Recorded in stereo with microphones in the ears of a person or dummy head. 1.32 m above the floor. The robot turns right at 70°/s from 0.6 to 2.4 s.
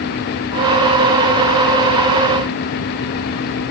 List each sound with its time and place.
Only background noise.